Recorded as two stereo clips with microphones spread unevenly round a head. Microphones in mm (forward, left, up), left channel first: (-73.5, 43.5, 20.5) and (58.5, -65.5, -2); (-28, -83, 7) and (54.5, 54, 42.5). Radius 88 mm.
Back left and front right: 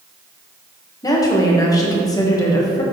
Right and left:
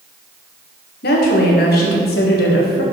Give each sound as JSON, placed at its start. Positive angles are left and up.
{"t": 1.0, "sound": "a woman speaking", "azimuth_deg": -150, "distance_m": 1.5}